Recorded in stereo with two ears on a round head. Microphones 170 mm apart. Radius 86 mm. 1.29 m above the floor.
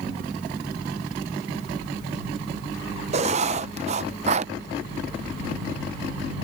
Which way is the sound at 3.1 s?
35° right (ahead or behind).